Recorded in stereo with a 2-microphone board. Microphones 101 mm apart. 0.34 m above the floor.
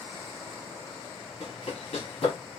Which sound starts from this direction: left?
Running footsteps, at 1.4 s.